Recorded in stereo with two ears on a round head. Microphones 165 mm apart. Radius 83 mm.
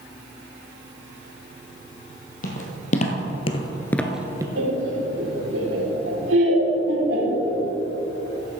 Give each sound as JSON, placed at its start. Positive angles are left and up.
{"t": 2.4, "sound": "footsteps", "side_deg": 45, "distance_m": 2.0}
{"t": 4.6, "sound": "laughter", "side_deg": -75, "distance_m": 3.5}